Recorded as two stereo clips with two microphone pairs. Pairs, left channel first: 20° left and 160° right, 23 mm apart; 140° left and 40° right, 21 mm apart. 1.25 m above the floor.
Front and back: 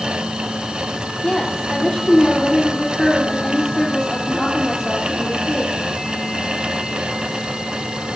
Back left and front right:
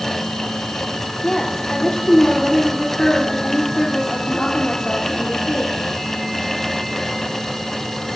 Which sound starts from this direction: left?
A woman speaking, at 1.2 s.